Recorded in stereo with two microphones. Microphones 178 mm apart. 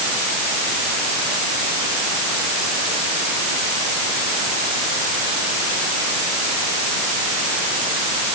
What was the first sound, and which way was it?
Only background noise.